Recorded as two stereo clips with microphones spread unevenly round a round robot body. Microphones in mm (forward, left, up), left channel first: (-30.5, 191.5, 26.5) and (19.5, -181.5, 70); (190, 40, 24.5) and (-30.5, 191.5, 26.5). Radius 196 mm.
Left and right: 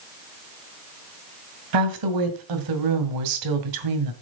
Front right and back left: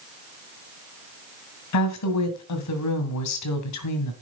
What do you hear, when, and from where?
1.7 s a woman speaking: 50° right, 2.5 m